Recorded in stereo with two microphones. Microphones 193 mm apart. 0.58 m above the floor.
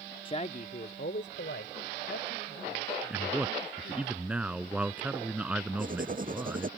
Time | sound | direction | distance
0.2 | a man speaking | 25° left (ahead or behind) | ?
3.1 | a man speaking | 5° right (ahead or behind) | ?
5.8 | writing | 45° right (ahead or behind) | ?